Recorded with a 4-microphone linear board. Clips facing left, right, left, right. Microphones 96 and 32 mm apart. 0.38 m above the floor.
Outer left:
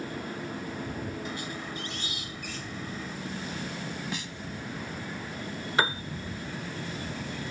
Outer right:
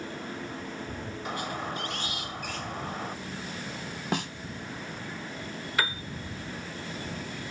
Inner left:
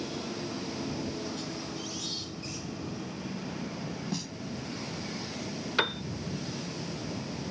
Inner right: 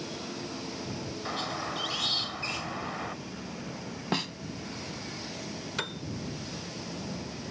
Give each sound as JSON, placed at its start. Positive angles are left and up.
{"t": 1.2, "sound": "a squeak", "side_deg": -60}
{"t": 4.1, "sound": "a snare drum", "side_deg": -55}
{"t": 5.8, "sound": "a piano", "side_deg": 30}